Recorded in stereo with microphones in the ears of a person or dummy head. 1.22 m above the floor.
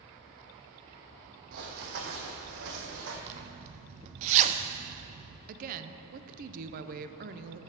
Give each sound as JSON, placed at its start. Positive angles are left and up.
{"t": 1.5, "sound": "running footsteps", "side_deg": -50, "distance_m": 2.5}
{"t": 3.3, "sound": "a zipper", "side_deg": -40, "distance_m": 0.6}
{"t": 5.5, "sound": "a woman speaking", "side_deg": -45, "distance_m": 0.6}